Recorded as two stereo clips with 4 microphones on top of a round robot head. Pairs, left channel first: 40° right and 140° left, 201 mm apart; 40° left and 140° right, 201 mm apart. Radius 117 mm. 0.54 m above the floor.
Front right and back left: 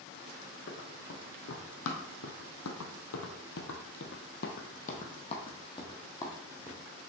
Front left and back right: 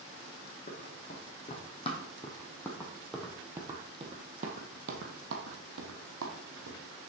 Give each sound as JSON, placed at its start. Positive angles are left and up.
{"t": 0.7, "sound": "running footsteps", "azimuth_deg": -10, "distance_m": 2.0}